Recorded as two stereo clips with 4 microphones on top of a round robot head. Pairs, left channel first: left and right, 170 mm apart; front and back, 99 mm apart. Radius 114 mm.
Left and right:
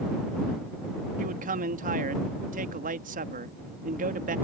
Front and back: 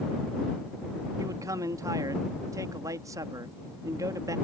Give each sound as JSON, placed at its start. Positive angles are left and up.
{"t": 1.2, "sound": "a man speaking", "azimuth_deg": -125}